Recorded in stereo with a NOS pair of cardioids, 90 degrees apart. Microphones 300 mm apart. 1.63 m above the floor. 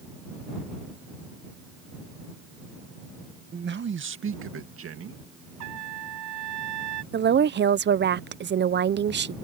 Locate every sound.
3.5 s a man speaking: 35° right; by 5.2 s 50° right
5.6 s a trumpet: 65° right
7.1 s a woman speaking: 35° right